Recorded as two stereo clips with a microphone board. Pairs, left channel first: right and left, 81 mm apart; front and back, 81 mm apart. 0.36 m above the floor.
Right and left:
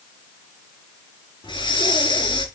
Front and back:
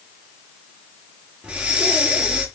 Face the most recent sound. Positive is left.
turn(degrees=-100)